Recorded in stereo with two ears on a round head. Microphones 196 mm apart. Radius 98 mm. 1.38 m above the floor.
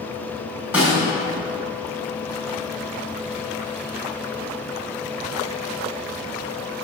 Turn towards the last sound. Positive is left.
turn(degrees=-5)  # may be behind; listen again after turning